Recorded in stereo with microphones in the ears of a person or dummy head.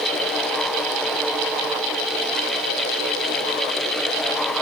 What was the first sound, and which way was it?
Only background noise.